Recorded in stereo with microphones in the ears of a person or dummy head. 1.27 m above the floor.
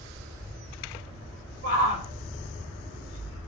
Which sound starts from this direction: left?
A shout, at 1.6 s.